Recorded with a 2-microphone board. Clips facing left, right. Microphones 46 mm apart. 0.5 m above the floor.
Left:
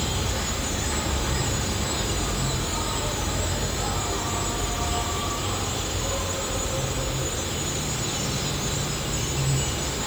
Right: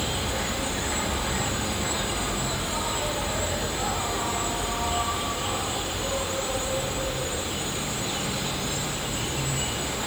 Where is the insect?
25° right (ahead or behind), 3.5 m.